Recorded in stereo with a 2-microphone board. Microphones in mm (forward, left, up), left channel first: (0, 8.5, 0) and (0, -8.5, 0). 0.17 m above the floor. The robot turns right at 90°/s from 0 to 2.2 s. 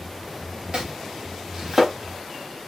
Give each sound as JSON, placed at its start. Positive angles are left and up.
{"t": 0.7, "sound": "chopping", "side_deg": -70, "distance_m": 4.0}